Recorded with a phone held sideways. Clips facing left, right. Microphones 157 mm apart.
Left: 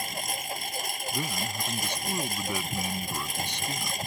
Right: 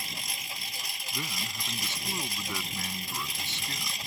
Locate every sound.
0.0 s a lawn mower: 50° left (ahead or behind)
1.1 s a man speaking: 15° left (ahead or behind)